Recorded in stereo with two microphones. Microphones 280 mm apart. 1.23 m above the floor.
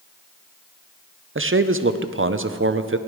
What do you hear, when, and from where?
1.4 s a man speaking: 45° right (ahead or behind), 0.5 m